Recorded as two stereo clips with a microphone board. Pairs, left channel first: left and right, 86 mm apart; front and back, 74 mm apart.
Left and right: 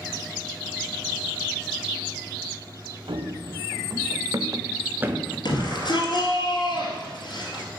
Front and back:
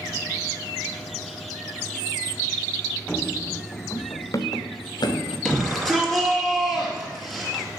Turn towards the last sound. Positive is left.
turn(degrees=85)